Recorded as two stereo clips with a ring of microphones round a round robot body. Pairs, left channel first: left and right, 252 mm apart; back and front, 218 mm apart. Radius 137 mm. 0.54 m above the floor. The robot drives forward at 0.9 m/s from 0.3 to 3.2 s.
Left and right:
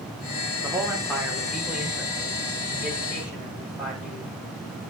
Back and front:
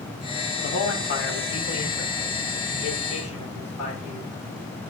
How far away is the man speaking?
About 1.7 m.